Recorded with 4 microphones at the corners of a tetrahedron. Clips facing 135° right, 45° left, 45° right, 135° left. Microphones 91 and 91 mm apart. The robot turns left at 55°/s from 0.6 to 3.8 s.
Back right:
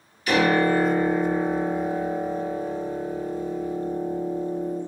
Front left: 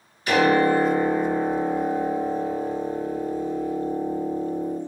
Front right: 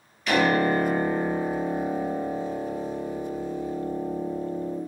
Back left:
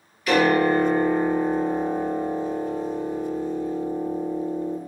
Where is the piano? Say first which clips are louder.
Front left 2 dB, back left 3 dB; 55° left, 1.9 m; by 4.8 s 120° right, 1.9 m.